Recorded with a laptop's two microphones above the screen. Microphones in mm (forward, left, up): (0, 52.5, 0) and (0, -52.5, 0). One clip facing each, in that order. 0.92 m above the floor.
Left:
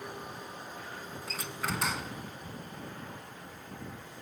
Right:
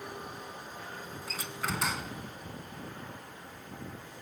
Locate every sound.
1.3 s a door slam: centre (ahead or behind)